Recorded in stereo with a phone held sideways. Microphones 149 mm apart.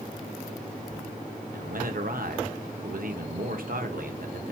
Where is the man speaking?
70° right (ahead or behind), 0.8 m.